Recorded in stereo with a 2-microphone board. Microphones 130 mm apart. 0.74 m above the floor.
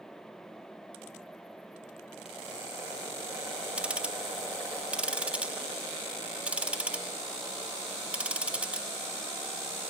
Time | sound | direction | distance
3.8 | ticking | 10° right (ahead or behind) | 0.7 m